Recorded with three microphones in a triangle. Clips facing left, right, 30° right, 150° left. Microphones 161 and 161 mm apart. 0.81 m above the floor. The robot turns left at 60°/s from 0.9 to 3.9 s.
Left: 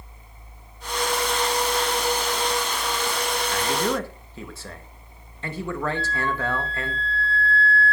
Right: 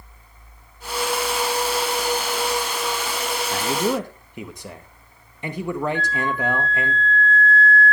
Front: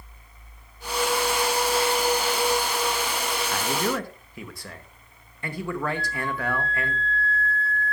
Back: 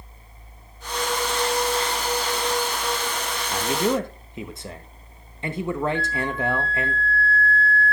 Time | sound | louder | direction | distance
3.5 | a man speaking | right 3 dB, back 6 dB | 130° right | 1.0 m
6.0 | a flute | right 2 dB, back 4 dB | 145° left | 0.9 m